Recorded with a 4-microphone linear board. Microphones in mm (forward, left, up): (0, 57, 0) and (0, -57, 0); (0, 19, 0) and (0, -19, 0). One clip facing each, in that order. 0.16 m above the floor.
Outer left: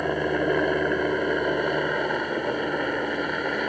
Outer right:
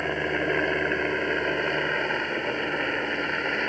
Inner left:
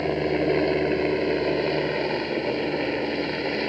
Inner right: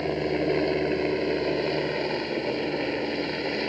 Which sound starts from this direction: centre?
A helicopter, at 0.0 s.